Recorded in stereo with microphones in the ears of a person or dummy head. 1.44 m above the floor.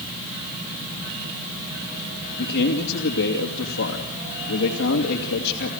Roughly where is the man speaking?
Left.